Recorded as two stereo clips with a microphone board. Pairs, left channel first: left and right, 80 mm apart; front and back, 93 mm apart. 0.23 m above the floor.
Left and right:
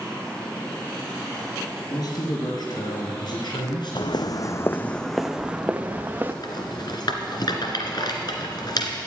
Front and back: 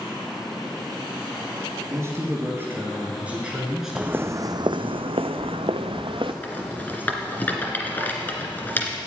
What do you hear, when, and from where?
1.9 s a man speaking: 120° left, 3 m; by 5.0 s 75° left, 2.5 m
4.0 s footsteps: 105° left, 0.8 m; by 6.3 s 150° right, 1.4 m
6.4 s a rattle: 70° left, 2 m